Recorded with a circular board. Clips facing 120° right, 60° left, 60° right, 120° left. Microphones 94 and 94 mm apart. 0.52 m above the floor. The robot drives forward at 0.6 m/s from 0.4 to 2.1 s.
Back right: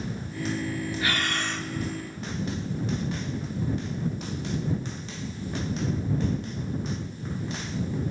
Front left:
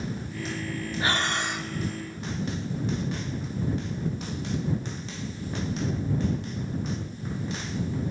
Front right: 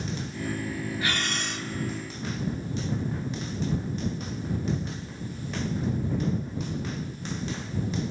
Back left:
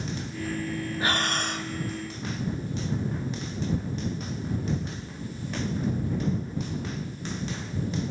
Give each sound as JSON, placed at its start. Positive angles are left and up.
{"t": 1.0, "sound": "breathing", "azimuth_deg": 95, "distance_m": 0.7}